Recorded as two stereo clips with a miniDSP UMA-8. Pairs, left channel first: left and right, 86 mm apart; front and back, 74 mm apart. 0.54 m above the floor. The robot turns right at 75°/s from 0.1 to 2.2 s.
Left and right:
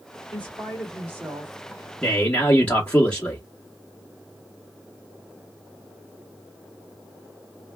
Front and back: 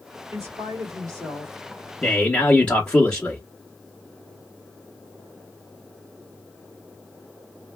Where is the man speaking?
35° left, 0.9 m; by 3.4 s 45° left, 0.9 m.